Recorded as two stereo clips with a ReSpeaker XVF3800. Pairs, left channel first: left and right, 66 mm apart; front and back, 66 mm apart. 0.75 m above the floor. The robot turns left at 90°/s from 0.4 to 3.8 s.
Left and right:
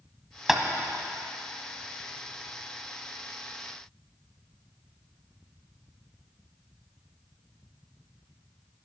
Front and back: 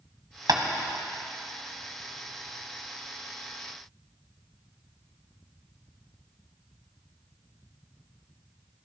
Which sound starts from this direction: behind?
Tapping, at 0.5 s.